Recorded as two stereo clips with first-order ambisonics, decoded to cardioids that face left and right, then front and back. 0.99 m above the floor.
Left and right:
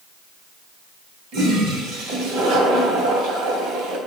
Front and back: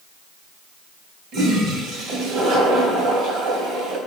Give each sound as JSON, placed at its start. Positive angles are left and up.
{"t": 1.3, "sound": "a toilet flushing", "azimuth_deg": -130, "distance_m": 2.5}